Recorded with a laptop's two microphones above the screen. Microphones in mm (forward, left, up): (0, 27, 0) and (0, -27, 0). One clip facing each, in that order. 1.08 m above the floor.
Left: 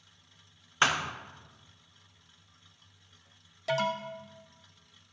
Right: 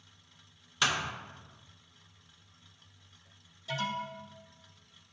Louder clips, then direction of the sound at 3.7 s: Left 5 dB; 80° left.